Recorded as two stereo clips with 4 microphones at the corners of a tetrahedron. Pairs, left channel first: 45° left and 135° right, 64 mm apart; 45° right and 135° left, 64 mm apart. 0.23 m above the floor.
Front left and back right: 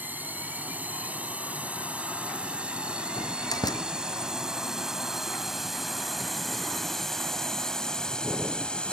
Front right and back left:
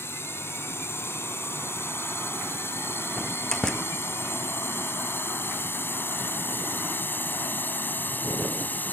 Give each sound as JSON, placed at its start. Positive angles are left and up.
{"t": 0.0, "sound": "a drone", "azimuth_deg": -80}
{"t": 3.2, "sound": "a door slam", "azimuth_deg": 35}